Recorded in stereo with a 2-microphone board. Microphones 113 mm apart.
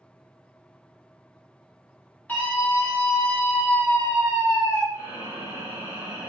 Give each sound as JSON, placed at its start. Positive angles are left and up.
{"t": 2.3, "sound": "a scream", "side_deg": 15, "distance_m": 1.4}
{"t": 4.9, "sound": "breathing", "side_deg": 25, "distance_m": 1.1}